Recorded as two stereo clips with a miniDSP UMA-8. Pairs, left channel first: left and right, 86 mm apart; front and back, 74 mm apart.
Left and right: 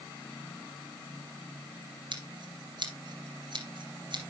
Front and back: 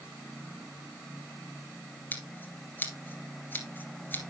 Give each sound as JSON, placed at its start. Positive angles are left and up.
{"t": 2.1, "sound": "scissors", "azimuth_deg": -65, "distance_m": 2.5}